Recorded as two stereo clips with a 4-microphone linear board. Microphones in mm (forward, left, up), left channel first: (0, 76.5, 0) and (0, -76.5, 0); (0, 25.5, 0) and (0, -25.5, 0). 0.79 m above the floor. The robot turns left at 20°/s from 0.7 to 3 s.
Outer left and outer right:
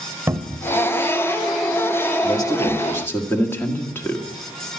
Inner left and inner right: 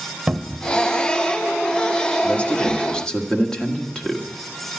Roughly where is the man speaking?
Left.